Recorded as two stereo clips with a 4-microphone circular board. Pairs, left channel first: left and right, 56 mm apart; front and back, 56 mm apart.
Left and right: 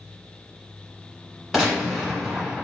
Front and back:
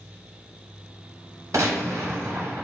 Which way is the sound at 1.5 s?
175° right.